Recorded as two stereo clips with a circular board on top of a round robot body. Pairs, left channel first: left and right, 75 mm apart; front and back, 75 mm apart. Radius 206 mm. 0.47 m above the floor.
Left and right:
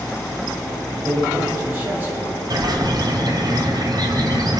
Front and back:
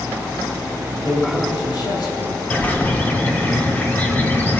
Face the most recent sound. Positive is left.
turn(degrees=-65)